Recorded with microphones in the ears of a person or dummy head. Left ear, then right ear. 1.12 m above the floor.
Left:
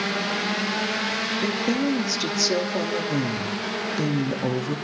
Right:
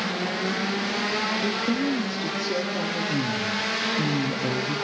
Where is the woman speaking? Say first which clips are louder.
Left 1 dB; 75° left (ahead or behind), 2.5 m.